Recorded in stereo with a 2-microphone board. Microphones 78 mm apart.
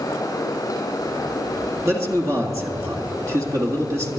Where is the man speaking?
45° right (ahead or behind), 2.0 m.